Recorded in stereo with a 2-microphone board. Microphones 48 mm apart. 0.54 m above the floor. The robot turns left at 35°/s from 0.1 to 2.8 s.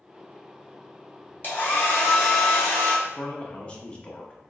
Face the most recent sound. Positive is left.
turn(degrees=25)  # may be behind; listen again after turning